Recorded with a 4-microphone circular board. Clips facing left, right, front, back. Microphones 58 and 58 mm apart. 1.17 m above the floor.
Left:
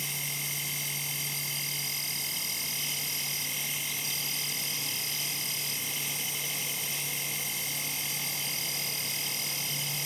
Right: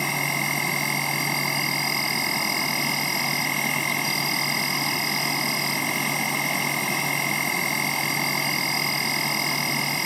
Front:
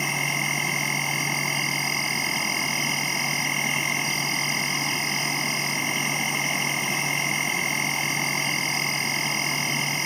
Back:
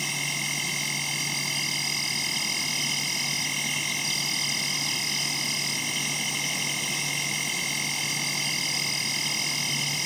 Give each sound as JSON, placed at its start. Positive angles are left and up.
{"t": 0.0, "sound": "an insect", "azimuth_deg": -55}